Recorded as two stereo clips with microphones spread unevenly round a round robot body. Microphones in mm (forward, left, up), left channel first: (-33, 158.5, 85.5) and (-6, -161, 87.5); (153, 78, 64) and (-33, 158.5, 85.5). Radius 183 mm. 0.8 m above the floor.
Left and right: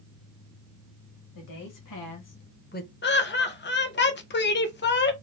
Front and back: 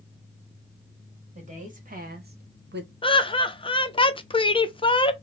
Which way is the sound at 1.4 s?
100° left.